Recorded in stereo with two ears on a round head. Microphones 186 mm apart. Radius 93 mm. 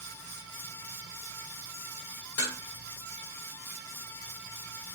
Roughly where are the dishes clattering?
Left.